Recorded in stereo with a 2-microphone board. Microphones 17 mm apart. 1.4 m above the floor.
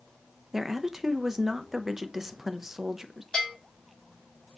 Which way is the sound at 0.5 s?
20° right (ahead or behind).